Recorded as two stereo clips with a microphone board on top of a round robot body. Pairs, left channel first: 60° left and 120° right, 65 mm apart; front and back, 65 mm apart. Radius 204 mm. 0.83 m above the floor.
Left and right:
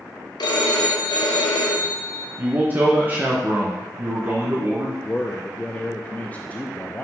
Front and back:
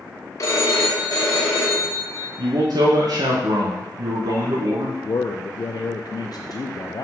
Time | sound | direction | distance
0.4 | a phone ringing | 45° left | 1.2 m
2.4 | a man speaking | straight behind | 1.0 m
5.0 | a man speaking | 5° right | 0.6 m